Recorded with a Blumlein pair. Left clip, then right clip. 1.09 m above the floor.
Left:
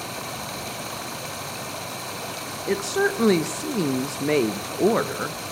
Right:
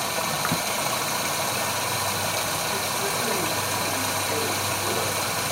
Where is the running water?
70° right, 1.6 m.